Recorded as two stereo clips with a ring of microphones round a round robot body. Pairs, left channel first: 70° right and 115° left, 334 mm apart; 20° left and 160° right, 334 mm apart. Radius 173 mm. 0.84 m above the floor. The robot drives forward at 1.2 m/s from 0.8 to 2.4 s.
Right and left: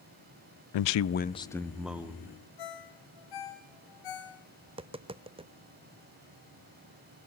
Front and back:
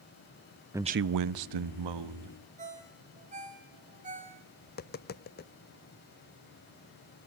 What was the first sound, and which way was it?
A man speaking, 75° right.